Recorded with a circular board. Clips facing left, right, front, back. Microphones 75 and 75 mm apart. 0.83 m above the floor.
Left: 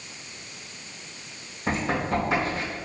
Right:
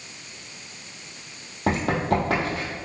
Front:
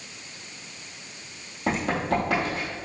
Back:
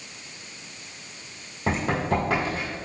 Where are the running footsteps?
95° right, 1.9 m.